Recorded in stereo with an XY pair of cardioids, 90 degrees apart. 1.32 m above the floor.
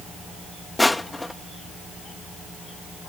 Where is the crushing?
15° left.